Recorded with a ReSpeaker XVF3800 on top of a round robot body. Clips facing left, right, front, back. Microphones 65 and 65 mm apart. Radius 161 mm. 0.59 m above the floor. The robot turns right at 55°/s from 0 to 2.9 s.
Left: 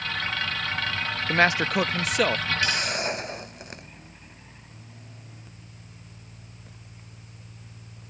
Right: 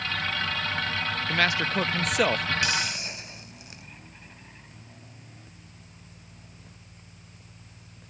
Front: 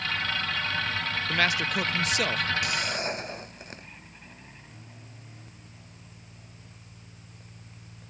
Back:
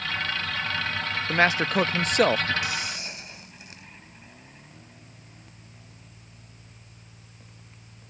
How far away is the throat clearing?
I don't hear throat clearing.